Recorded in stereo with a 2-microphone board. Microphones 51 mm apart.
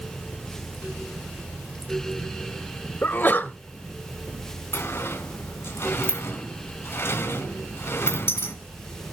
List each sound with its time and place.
3.0 s a sneeze: 40° left (ahead or behind), 1.1 m
4.7 s a sliding door: 50° left (ahead or behind), 3.5 m